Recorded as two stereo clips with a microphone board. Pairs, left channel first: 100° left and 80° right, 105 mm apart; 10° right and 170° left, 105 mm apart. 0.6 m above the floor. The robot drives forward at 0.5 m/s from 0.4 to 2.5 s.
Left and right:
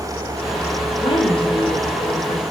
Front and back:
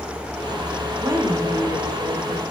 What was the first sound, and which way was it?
A woman speaking, 105° left.